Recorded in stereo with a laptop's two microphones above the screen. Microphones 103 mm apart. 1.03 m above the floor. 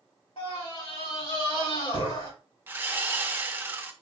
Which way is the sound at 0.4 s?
70° left (ahead or behind).